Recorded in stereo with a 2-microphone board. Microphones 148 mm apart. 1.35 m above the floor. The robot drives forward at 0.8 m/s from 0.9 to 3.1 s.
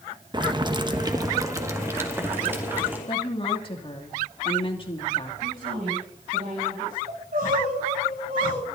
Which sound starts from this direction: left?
A woman speaking, at 3.1 s.